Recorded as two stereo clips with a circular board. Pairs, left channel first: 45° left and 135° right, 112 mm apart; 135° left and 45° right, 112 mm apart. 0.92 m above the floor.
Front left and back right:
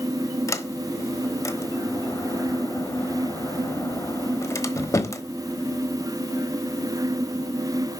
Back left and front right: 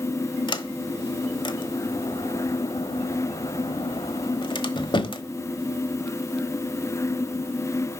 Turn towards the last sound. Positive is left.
turn(degrees=100)